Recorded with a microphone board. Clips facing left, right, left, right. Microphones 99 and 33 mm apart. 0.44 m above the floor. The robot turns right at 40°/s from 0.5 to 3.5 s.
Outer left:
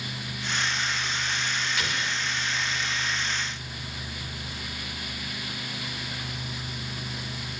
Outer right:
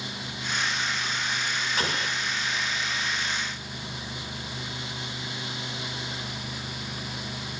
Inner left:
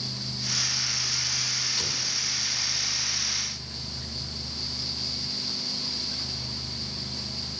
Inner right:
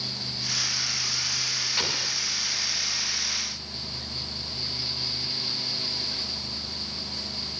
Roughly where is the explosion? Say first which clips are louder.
Outer right 2 dB, inner right 3 dB; right.